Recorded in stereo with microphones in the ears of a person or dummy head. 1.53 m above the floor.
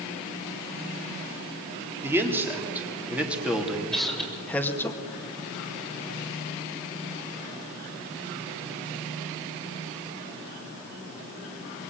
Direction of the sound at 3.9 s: Centre (ahead or behind).